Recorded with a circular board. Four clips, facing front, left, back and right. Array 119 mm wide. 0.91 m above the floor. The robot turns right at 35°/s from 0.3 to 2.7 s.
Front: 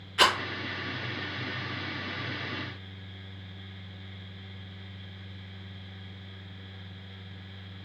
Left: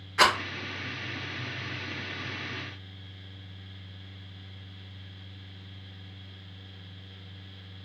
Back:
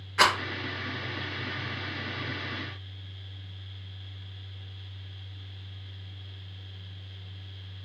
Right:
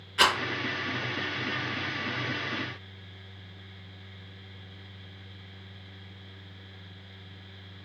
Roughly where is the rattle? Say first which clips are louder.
Left 2 dB, back 1 dB; behind left.